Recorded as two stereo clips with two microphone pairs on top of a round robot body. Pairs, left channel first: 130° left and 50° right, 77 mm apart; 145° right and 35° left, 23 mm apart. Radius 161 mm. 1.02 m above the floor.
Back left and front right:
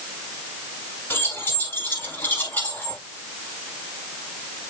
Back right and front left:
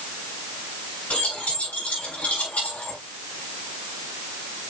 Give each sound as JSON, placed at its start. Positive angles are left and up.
{"t": 1.1, "sound": "keys jangling", "azimuth_deg": -165, "distance_m": 8.0}